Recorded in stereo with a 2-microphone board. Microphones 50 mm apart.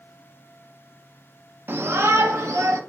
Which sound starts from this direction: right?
A shout, at 1.7 s.